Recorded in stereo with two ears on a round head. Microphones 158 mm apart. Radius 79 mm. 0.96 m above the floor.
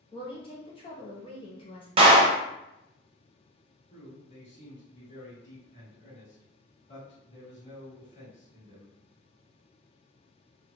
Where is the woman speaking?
30° left (ahead or behind), 1.0 m.